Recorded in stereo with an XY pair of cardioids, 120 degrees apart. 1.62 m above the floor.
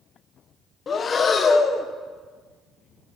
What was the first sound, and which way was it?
Breathing, 40° left.